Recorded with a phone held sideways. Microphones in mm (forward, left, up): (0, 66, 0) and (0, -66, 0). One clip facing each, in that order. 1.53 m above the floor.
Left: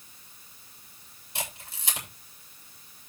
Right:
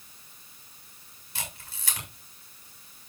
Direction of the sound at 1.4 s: 20° left (ahead or behind).